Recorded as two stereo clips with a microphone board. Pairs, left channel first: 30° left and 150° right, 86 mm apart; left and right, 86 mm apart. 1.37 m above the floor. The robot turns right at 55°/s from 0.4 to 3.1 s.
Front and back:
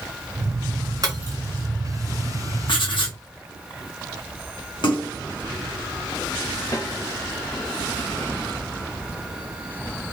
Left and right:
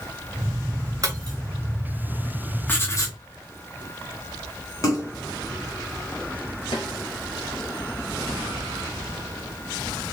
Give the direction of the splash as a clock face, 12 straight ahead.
11 o'clock.